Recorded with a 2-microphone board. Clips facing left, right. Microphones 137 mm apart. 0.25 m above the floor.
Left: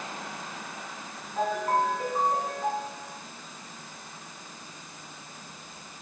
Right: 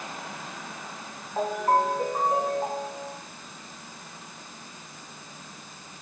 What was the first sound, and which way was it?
A ringtone, 50° right (ahead or behind).